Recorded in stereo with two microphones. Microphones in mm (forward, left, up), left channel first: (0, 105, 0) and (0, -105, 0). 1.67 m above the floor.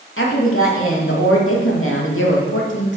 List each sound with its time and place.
0.2 s a woman speaking: 80° left, 3 m; by 3.0 s 65° left (ahead or behind), 2.5 m